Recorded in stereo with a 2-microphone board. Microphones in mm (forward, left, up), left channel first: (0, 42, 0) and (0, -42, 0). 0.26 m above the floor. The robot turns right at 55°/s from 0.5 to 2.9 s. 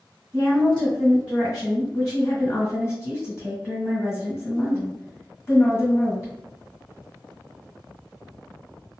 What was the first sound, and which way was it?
A woman speaking, straight ahead.